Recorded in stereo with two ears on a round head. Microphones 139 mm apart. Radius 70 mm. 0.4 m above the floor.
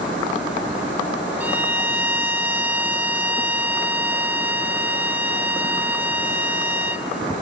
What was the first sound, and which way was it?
A violin, 10° right (ahead or behind).